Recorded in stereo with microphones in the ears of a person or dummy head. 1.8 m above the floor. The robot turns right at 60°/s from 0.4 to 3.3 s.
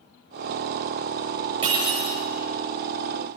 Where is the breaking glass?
150° right, 8 m; by 2.2 s 120° right, 8 m.